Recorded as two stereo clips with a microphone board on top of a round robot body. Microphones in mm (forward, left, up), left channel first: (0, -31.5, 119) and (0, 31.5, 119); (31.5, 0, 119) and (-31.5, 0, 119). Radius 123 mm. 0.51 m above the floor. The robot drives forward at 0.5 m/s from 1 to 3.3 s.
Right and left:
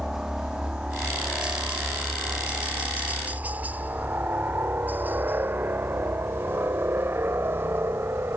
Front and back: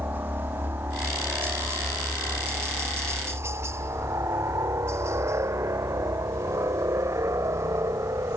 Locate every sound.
0.0 s a helicopter: 165° left; by 8.4 s 145° left